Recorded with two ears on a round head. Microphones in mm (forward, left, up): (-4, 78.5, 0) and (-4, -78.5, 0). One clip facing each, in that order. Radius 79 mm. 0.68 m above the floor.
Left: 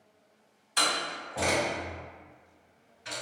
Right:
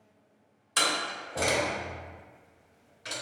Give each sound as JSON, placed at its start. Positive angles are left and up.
{"t": 0.8, "sound": "a door slam", "side_deg": -80, "distance_m": 1.7}